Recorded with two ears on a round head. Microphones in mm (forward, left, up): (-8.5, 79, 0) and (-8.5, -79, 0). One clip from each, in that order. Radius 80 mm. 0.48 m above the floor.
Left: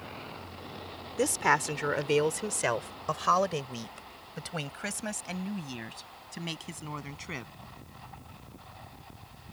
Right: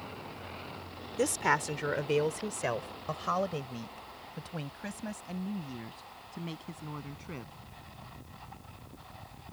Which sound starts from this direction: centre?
A woman speaking, at 1.2 s.